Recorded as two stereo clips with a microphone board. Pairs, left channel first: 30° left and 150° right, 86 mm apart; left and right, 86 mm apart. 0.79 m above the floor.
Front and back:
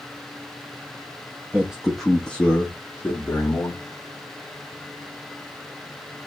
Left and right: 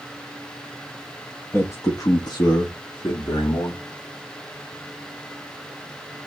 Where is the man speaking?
140° left, 0.7 m; by 3.8 s 90° left, 1.6 m.